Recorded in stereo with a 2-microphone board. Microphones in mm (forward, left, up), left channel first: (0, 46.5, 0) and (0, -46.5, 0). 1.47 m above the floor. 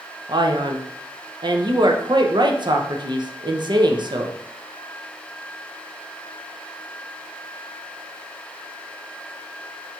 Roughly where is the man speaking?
Right.